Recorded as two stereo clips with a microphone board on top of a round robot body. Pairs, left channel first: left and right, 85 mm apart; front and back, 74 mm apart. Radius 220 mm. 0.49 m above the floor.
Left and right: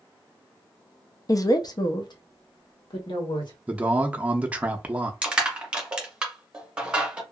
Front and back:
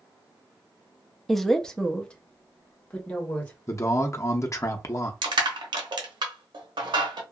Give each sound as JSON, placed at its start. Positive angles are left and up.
{"t": 1.3, "sound": "a woman speaking", "azimuth_deg": 90, "distance_m": 0.7}
{"t": 3.7, "sound": "a man speaking", "azimuth_deg": -20, "distance_m": 0.8}
{"t": 5.2, "sound": "crushing", "azimuth_deg": -165, "distance_m": 0.9}